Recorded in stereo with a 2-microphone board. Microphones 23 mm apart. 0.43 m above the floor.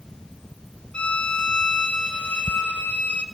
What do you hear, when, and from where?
0.9 s a violin: 65° left (ahead or behind), 1.2 m